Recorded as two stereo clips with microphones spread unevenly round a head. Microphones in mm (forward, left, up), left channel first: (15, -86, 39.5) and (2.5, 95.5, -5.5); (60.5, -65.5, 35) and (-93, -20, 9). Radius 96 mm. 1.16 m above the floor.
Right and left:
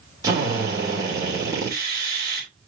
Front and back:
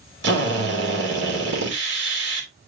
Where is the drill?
170° left, 2.5 m.